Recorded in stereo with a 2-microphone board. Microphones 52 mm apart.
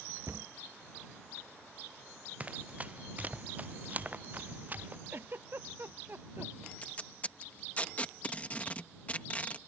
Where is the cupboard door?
70° right (ahead or behind).